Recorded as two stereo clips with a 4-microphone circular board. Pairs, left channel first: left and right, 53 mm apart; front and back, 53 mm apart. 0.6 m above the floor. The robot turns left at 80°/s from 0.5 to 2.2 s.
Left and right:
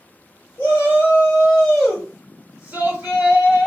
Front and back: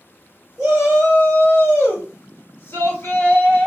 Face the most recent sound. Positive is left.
turn(degrees=-35)